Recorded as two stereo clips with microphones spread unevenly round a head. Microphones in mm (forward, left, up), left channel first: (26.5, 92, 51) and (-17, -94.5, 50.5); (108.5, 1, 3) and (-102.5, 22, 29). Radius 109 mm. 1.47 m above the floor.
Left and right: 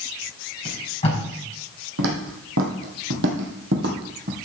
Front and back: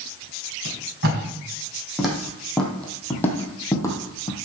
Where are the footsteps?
100° right, 3 m; by 4.3 s 80° right, 2 m.